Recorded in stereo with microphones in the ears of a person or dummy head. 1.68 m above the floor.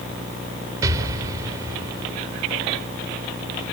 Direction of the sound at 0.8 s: 25° right (ahead or behind).